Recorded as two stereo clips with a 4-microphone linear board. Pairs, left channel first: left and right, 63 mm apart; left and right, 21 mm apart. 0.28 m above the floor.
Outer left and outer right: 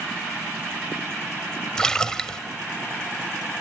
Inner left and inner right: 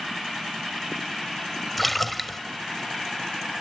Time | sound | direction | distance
1.8 | a splash | 10° left (ahead or behind) | 0.7 m